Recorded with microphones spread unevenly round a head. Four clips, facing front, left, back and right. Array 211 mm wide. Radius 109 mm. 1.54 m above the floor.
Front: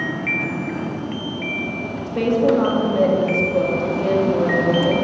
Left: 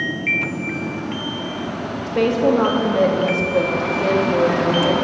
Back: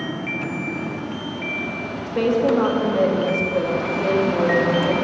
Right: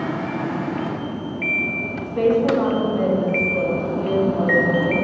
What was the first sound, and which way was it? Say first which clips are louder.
A woman speaking: left 1 dB, front 1 dB; 140° left.